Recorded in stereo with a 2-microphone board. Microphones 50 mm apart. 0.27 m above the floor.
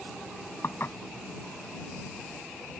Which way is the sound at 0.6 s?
55° left (ahead or behind).